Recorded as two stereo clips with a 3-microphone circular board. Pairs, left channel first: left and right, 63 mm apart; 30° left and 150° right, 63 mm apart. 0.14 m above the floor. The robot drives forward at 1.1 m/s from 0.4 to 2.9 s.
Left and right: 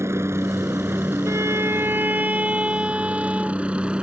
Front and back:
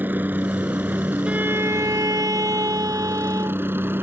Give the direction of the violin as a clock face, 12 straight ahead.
3 o'clock.